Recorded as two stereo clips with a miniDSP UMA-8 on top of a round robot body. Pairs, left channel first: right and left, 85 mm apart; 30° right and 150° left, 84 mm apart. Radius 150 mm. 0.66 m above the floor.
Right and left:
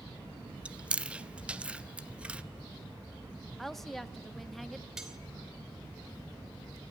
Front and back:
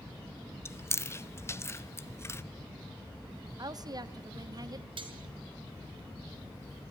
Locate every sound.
0.7 s chewing: 15° left, 1.1 m
3.6 s a woman speaking: straight behind, 1.3 m
5.0 s cutlery clinking: 175° left, 2.5 m